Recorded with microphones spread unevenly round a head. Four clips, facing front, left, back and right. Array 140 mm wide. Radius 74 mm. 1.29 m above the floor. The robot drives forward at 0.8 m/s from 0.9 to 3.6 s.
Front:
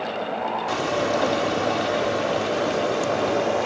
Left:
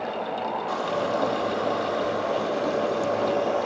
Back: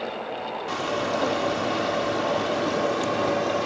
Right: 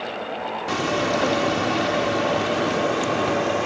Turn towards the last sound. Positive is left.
turn(degrees=-115)